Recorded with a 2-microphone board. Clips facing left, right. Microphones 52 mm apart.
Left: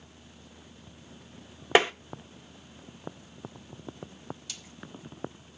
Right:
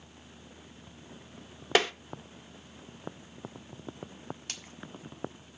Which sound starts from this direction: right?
A splash, at 4.5 s.